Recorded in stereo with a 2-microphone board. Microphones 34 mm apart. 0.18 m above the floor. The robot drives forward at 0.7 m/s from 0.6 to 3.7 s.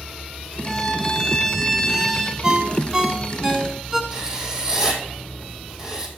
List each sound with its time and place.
0.7 s a violin: 15° left (ahead or behind), 0.7 m; by 2.3 s 5° left (ahead or behind), 1.5 m
2.4 s a ringtone: 20° right (ahead or behind), 0.8 m; by 4.0 s 15° right (ahead or behind), 1.1 m
4.1 s writing: 20° right (ahead or behind), 1.8 m